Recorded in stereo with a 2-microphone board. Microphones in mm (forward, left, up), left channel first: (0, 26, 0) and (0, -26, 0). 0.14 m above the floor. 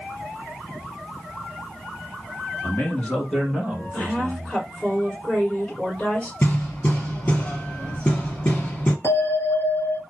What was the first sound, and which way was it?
A man speaking, 35° left (ahead or behind).